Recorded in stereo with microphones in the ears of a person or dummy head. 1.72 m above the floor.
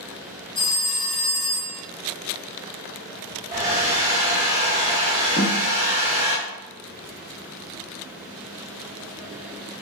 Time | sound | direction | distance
0.6 | a phone ringing | 15° left (ahead or behind) | 1.1 m
3.5 | a hair dryer | 25° right (ahead or behind) | 1.2 m
5.4 | a snare drum | 20° left (ahead or behind) | 1.4 m